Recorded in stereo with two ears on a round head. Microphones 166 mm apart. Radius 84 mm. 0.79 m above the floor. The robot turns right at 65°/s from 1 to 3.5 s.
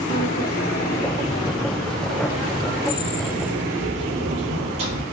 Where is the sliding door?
120° left, 3.5 m; by 5.0 s 75° right, 3.5 m.